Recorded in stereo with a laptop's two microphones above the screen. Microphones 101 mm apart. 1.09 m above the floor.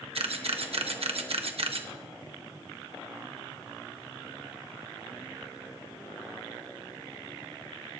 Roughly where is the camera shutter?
Right.